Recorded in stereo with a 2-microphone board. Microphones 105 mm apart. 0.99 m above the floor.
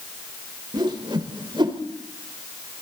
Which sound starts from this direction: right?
A whoosh, at 0.7 s.